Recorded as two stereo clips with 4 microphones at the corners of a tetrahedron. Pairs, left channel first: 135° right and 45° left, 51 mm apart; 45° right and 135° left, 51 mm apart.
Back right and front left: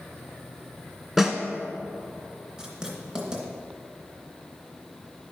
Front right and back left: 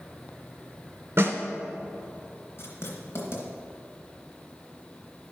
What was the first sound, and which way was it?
A snare drum, 120° left.